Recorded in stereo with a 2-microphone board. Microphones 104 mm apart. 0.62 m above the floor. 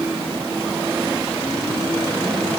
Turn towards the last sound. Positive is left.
No sound to turn to.